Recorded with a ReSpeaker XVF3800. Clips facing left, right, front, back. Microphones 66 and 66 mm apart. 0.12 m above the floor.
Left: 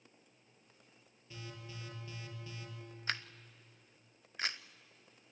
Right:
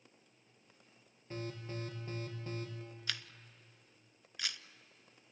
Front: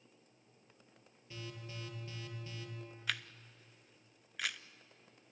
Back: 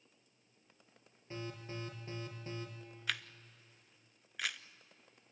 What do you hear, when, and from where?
1.3 s an alarm: 130° right, 3.5 m
3.1 s a camera shutter: 90° left, 0.5 m